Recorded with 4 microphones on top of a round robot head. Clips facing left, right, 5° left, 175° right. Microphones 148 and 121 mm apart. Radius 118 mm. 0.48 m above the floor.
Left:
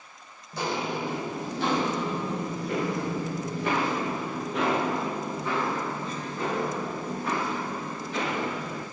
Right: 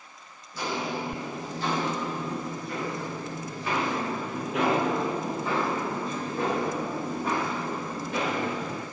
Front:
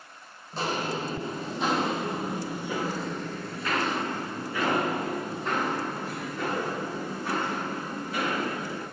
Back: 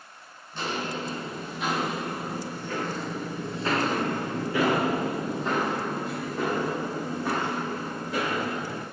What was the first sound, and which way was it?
Footsteps, 55° left.